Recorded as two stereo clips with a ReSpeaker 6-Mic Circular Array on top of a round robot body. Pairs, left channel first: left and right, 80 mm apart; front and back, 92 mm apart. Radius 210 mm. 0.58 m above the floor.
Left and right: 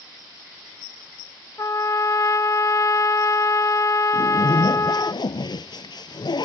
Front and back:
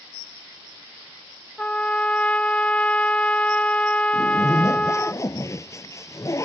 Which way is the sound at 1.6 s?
70° left.